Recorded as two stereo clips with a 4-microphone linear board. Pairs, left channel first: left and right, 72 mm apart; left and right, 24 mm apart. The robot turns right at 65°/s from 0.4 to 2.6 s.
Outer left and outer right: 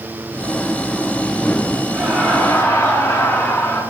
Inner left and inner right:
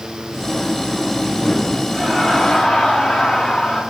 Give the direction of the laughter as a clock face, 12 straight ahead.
12 o'clock.